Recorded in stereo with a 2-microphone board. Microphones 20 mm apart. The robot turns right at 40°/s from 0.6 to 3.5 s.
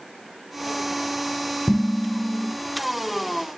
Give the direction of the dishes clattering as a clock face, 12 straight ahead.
11 o'clock.